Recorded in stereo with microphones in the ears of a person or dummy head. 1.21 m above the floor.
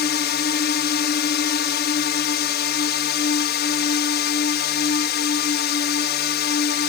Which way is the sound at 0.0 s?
50° left (ahead or behind).